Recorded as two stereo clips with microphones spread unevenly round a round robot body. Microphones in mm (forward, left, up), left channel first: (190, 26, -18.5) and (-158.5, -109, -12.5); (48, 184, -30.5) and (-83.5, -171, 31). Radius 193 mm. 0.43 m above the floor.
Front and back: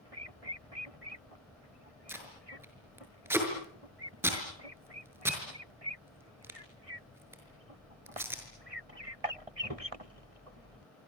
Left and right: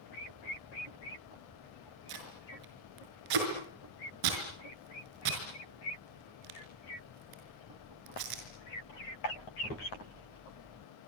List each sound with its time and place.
2.1 s tape being pulled: 75° right, 6 m